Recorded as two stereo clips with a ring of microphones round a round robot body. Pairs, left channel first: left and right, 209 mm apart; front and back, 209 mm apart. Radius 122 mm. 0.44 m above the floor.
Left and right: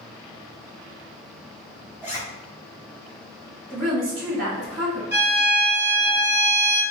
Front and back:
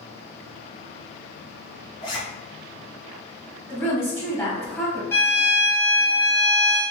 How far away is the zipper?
About 1.4 m.